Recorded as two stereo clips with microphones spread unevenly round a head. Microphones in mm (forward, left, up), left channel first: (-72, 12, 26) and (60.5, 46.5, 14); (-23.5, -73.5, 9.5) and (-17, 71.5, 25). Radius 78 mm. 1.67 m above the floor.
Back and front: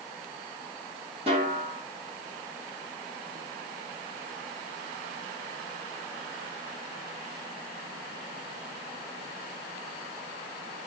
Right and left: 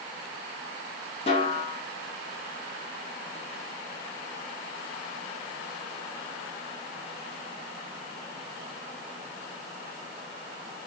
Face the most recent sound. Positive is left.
turn(degrees=-40)